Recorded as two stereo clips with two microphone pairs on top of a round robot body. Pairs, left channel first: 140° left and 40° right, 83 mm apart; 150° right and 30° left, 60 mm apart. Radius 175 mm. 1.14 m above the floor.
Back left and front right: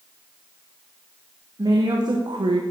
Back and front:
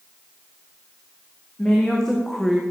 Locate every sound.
1.6 s a woman speaking: 75° right, 1.7 m; by 2.6 s 55° right, 0.9 m